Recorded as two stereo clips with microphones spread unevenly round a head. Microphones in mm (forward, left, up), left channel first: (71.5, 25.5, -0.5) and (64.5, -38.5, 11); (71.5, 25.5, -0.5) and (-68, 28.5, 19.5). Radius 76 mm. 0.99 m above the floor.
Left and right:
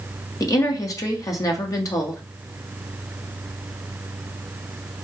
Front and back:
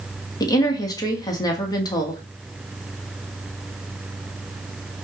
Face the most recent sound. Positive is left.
turn(degrees=60)